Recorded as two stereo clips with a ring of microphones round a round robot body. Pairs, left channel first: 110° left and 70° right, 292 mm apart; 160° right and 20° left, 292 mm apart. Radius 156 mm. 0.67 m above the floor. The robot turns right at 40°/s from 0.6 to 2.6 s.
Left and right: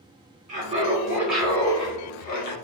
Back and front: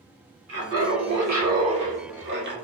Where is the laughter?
10° right, 1.5 m; by 2.5 s 70° left, 1.5 m.